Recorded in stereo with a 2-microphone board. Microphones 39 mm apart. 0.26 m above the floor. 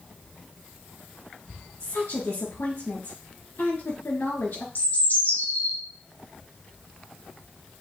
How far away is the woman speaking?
About 3.5 m.